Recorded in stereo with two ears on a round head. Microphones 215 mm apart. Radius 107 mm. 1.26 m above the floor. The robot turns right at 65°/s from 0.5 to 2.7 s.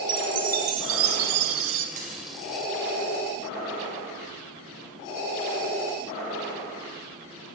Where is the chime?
140° right, 0.6 m; by 1.9 s 55° right, 0.6 m.